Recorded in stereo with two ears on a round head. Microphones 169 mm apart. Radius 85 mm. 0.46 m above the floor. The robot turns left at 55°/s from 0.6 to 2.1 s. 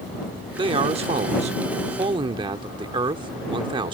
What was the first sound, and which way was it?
A man speaking, 50° right.